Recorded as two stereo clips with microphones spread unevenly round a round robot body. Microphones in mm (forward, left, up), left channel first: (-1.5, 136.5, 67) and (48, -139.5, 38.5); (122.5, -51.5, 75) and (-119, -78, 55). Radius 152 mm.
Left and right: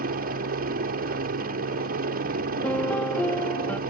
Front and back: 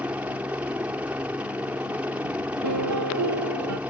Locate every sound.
0.0 s a helicopter: 100° right
2.6 s a piano: 175° right